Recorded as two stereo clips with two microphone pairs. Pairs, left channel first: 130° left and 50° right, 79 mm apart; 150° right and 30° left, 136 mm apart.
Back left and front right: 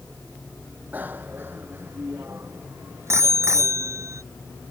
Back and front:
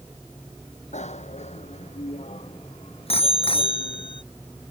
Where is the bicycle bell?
115° right; by 4.2 s 95° right.